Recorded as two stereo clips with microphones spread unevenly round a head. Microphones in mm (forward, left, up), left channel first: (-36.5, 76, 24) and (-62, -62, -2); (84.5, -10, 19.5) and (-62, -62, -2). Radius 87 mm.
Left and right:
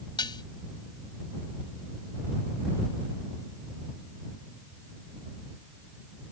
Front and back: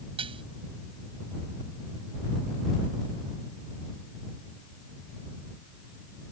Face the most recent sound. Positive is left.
turn(degrees=135)